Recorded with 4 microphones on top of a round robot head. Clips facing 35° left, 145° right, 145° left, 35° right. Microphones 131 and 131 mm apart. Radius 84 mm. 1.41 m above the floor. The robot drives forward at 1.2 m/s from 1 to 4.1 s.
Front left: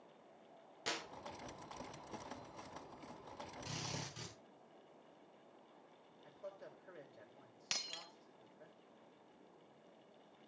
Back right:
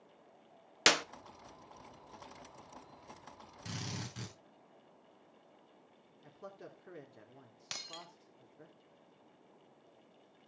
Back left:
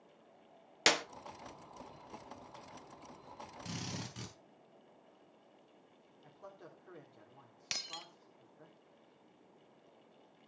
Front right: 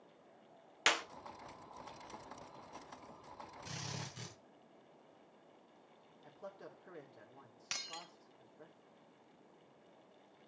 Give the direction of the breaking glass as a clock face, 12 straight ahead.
8 o'clock.